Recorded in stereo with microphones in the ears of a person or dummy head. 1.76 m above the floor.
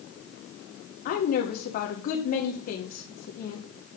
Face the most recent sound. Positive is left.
turn(degrees=40)  # may be behind; listen again after turning